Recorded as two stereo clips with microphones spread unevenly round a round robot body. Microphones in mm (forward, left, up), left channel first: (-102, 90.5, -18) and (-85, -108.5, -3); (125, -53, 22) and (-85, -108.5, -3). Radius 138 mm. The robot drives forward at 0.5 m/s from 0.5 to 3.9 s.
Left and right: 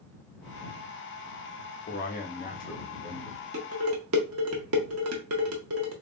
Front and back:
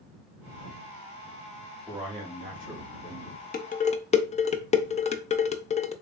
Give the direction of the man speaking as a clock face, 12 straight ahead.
8 o'clock.